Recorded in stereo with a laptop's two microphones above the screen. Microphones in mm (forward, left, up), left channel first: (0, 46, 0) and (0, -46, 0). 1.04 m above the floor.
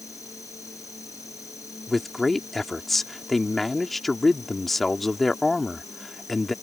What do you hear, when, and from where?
0.0 s an insect: 35° left (ahead or behind)
1.9 s a man speaking: centre (ahead or behind)